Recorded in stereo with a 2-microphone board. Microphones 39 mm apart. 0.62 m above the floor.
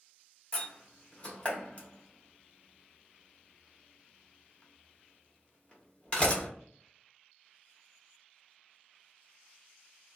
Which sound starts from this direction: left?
A door slam, at 0.5 s.